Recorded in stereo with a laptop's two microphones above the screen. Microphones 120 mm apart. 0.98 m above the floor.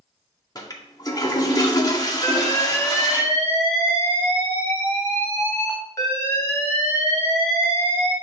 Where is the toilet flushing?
35° left (ahead or behind), 1.9 m.